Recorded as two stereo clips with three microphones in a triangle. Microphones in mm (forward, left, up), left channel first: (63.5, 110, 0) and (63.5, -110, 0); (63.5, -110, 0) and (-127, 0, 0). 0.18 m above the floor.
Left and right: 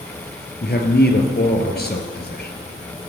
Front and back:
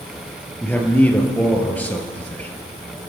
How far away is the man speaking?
About 3 m.